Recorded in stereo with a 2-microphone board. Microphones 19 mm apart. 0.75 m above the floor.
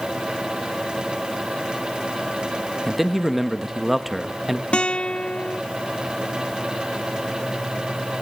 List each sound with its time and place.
2.9 s a man speaking: 10° right (ahead or behind), 0.9 m
4.7 s a guitar: 75° left (ahead or behind), 0.6 m